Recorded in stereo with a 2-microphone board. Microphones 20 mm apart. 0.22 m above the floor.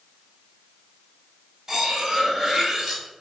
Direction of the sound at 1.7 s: 35° right (ahead or behind).